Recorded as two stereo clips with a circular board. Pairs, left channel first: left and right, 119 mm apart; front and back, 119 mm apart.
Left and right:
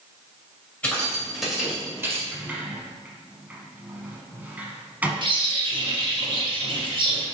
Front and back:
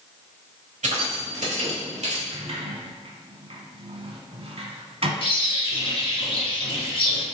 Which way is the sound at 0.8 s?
170° left.